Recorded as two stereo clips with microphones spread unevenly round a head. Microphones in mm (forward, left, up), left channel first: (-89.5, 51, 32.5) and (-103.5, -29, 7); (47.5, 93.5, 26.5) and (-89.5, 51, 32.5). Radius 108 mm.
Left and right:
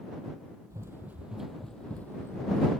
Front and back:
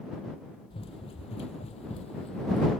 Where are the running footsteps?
30° right; by 2.7 s 55° left.